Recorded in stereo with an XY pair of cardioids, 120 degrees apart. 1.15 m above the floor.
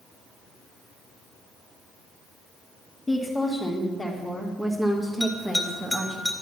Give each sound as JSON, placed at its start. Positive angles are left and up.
{"t": 3.1, "sound": "a woman speaking", "azimuth_deg": 15, "distance_m": 2.5}
{"t": 5.2, "sound": "a bell", "azimuth_deg": 5, "distance_m": 2.5}